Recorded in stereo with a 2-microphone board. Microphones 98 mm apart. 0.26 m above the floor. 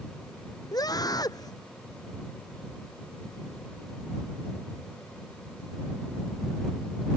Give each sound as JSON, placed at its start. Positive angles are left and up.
{"t": 0.7, "sound": "a scream", "side_deg": 45}